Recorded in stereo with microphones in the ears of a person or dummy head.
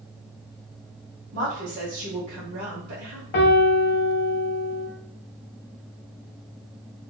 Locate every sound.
1.3 s a woman speaking: 55° right (ahead or behind), 1.1 m
3.3 s a piano: 55° left (ahead or behind), 0.7 m